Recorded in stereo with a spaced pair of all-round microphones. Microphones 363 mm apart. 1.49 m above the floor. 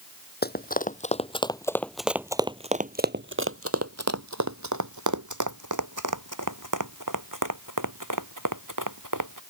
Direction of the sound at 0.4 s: 25° left (ahead or behind).